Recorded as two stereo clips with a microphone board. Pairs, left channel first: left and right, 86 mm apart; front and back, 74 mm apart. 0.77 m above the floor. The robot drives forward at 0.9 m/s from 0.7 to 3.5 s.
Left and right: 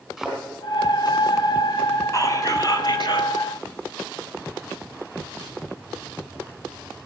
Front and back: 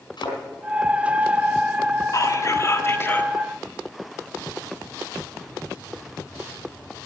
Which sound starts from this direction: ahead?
A thud, at 0.2 s.